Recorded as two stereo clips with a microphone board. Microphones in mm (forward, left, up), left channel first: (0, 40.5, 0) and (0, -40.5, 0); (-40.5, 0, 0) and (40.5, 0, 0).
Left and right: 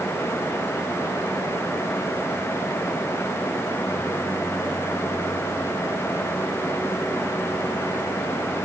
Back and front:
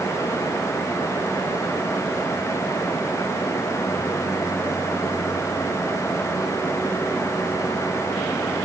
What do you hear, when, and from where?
Only background noise.